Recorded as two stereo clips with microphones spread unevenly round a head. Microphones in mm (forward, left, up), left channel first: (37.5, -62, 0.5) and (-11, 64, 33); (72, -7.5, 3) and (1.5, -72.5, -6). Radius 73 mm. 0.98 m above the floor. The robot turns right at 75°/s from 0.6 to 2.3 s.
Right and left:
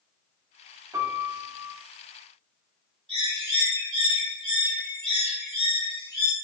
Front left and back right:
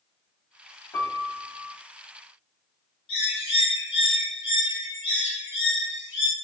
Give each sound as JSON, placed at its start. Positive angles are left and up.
{"t": 0.9, "sound": "a piano", "azimuth_deg": 45, "distance_m": 0.5}
{"t": 3.1, "sound": "a bird", "azimuth_deg": 20, "distance_m": 1.9}